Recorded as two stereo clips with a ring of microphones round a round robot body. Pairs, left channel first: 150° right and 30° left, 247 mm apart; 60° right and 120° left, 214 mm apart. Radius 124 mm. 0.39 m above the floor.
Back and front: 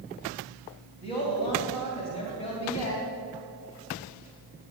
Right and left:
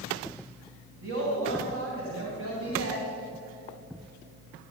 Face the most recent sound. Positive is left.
turn(degrees=145)